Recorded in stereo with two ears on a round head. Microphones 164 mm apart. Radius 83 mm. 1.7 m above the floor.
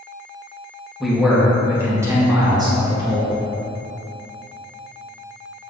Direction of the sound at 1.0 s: Centre (ahead or behind).